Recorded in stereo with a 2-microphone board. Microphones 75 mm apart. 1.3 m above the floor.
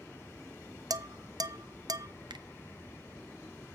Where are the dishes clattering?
60° right (ahead or behind), 0.5 m.